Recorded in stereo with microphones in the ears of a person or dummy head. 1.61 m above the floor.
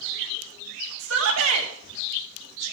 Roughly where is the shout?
Right.